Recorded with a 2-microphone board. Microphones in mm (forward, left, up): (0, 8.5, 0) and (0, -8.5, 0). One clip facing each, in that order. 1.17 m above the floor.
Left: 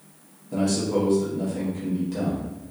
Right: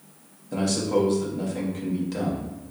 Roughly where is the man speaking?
Right.